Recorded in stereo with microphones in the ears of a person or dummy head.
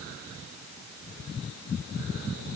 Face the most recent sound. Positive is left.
No sound to turn to.